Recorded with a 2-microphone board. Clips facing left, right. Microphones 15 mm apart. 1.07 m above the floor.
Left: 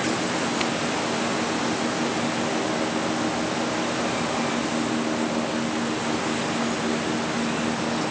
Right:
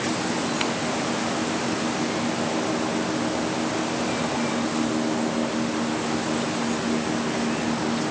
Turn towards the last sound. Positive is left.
No sound to turn to.